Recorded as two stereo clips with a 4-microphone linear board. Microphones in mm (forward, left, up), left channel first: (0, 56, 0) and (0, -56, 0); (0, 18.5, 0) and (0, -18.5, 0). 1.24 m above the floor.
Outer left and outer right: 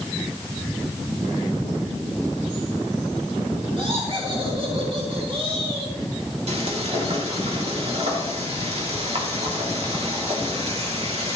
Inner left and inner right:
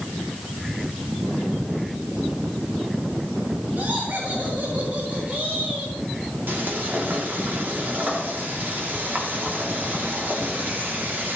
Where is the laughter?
55° right (ahead or behind), 4 m; by 6.0 s 60° right (ahead or behind), 5 m.